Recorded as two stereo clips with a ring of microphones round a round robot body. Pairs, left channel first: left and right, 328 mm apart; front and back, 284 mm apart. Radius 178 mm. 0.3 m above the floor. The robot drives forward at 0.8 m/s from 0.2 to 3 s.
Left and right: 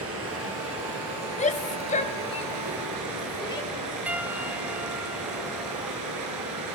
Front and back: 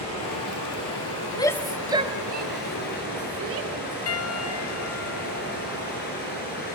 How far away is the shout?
About 0.9 m.